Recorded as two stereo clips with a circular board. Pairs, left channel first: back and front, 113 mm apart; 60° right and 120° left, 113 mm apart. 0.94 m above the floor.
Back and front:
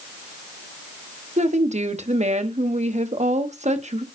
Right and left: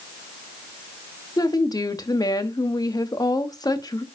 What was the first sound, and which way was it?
A woman speaking, 5° right.